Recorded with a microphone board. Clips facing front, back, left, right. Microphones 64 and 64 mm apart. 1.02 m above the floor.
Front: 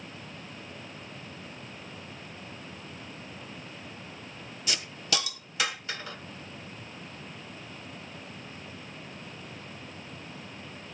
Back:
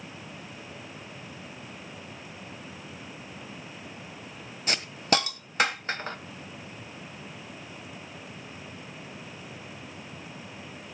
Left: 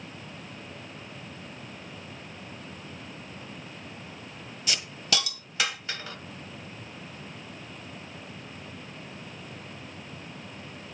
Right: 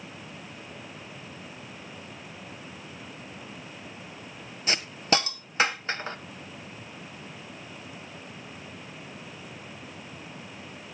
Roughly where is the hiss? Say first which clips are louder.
Back 7 dB, right 5 dB; behind right.